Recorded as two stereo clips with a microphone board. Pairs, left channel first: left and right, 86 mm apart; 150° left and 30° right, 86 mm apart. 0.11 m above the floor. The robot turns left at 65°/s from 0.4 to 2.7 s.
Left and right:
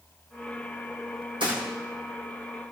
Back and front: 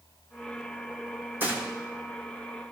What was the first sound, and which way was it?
A gunshot, 95° right.